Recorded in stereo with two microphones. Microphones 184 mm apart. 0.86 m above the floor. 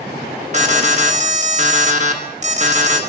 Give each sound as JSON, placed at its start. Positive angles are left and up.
{"t": 0.5, "sound": "an alarm", "side_deg": -40, "distance_m": 1.5}